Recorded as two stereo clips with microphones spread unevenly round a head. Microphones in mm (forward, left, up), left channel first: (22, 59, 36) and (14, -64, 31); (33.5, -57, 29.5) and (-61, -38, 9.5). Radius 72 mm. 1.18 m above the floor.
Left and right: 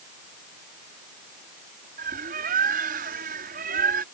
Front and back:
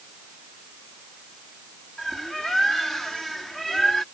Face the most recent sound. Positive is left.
turn(degrees=-100)